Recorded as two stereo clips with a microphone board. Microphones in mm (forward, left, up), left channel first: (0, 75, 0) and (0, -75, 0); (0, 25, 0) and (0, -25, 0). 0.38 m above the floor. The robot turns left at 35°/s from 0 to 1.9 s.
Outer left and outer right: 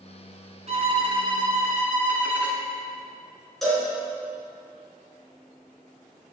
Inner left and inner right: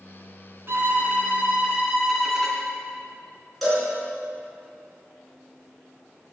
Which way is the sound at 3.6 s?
5° left (ahead or behind).